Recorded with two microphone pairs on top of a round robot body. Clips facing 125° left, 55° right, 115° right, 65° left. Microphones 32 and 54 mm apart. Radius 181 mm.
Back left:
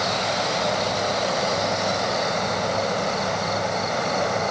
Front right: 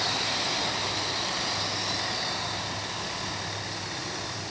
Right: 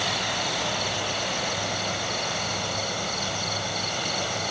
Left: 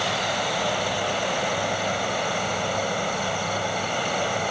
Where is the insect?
135° left.